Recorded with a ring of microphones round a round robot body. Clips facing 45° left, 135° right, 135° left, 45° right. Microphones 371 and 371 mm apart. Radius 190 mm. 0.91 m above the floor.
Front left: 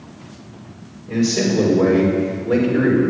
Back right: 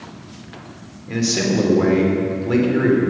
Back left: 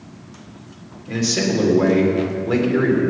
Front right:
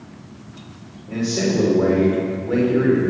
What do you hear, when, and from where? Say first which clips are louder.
1.1 s a man speaking: front left 2 dB, even; 175° left, 3.5 m; by 3.0 s 160° left, 4 m